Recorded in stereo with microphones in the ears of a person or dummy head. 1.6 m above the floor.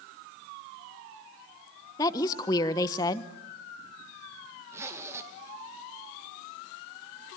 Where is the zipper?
20° right (ahead or behind), 2 m.